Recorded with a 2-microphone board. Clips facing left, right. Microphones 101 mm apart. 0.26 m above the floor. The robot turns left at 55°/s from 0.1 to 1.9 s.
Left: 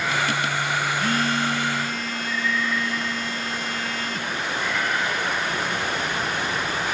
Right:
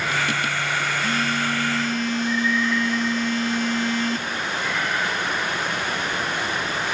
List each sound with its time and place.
1.0 s a phone buzzing: 50° left, 2.5 m; by 4.3 s straight ahead, 2.5 m